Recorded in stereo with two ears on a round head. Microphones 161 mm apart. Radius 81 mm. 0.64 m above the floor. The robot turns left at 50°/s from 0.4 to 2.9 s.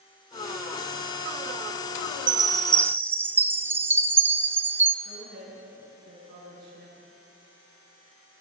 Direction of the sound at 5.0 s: 65° right (ahead or behind).